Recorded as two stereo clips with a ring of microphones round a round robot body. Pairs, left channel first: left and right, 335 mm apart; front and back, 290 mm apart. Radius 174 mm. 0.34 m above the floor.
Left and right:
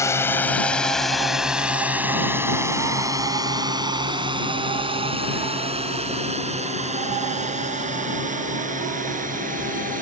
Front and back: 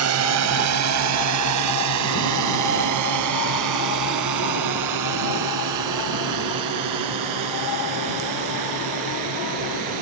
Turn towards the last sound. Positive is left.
turn(degrees=-155)